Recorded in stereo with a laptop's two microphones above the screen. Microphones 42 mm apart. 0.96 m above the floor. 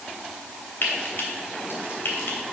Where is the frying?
60° left (ahead or behind), 2.5 m.